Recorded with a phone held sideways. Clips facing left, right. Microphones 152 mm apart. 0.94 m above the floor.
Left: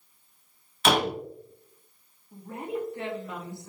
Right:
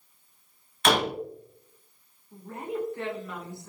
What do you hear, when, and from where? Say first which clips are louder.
0.8 s a door slam: even; 5° left (ahead or behind), 1.0 m
2.3 s a woman speaking: even; 20° left (ahead or behind), 1.6 m